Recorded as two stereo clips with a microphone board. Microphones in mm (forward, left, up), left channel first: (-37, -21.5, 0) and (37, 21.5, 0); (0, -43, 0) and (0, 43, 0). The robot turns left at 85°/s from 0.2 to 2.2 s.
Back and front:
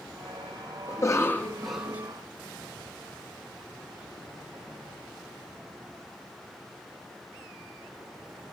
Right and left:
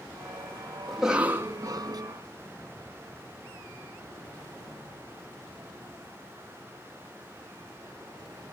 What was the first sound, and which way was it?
A cough, 175° right.